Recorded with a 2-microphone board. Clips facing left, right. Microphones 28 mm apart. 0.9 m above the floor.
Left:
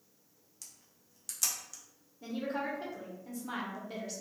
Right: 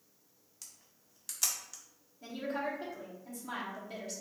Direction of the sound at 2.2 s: 5° left (ahead or behind).